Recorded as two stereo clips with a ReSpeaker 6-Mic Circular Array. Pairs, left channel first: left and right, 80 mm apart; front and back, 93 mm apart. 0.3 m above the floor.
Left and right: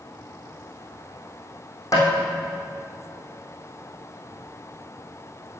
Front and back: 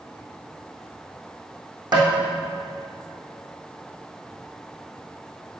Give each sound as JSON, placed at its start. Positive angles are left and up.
{"t": 1.9, "sound": "tapping", "azimuth_deg": 140, "distance_m": 4.0}